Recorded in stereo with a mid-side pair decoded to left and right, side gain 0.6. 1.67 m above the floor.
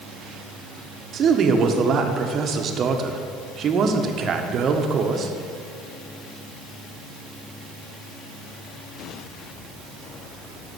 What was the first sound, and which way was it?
A man speaking, 45° right.